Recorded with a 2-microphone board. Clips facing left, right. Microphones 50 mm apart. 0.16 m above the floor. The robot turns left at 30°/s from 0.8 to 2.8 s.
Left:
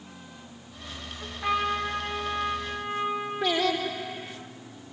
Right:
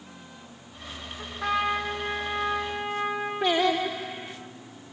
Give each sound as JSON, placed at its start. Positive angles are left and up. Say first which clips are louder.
{"t": 1.2, "sound": "a trumpet", "louder": "right 1 dB", "azimuth_deg": -80, "distance_m": 6.5}
{"t": 3.4, "sound": "singing", "louder": "right 3 dB", "side_deg": -25, "distance_m": 4.5}